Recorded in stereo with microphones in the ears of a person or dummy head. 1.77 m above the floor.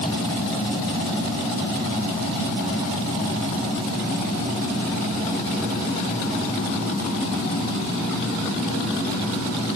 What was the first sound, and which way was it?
Only background noise.